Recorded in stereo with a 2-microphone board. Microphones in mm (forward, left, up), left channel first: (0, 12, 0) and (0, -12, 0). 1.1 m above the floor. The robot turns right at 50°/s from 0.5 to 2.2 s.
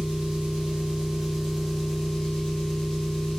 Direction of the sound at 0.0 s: 55° right.